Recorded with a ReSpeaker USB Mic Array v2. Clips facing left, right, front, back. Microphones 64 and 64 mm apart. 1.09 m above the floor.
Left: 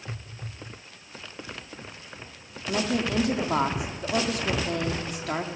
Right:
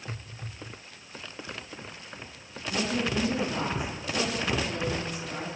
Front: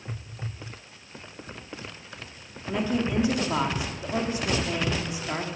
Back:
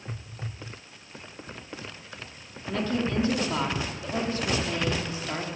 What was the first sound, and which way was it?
A woman speaking, 75° left.